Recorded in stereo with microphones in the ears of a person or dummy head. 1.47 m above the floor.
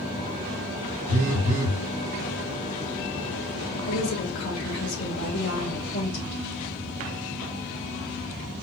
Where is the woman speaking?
80° left, 2.5 m.